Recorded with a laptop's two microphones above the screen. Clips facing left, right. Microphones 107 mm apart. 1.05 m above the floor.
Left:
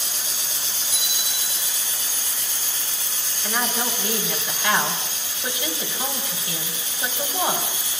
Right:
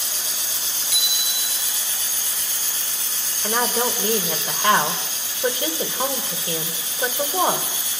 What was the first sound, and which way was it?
A bicycle bell, 85° right.